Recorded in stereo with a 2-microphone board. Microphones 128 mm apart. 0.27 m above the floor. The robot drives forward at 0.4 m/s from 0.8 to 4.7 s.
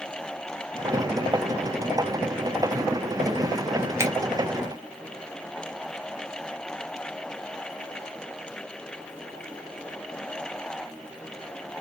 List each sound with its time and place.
4.0 s a finger snap: 20° right (ahead or behind), 1.0 m